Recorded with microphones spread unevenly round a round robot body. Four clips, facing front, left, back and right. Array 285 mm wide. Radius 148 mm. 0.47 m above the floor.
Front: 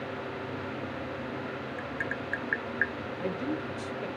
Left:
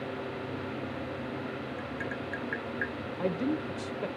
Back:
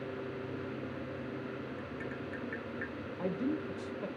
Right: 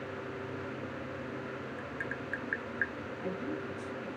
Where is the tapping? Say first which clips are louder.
Left 3 dB, front 6 dB; 10° right, 0.9 m.